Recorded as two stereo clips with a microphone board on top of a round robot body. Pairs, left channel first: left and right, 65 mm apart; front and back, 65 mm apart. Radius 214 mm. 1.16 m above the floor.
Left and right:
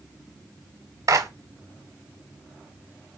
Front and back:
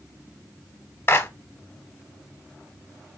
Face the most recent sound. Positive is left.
turn(degrees=-55)